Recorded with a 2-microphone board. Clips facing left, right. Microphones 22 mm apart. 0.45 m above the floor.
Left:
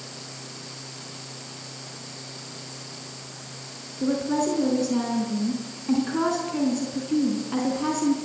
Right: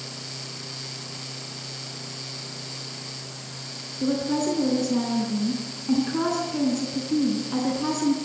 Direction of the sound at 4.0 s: 10° left (ahead or behind).